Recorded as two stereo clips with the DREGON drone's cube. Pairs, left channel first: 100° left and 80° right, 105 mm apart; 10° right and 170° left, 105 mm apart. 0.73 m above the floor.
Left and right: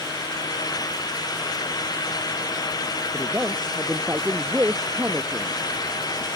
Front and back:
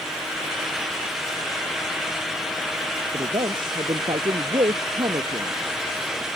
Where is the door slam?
I don't hear a door slam.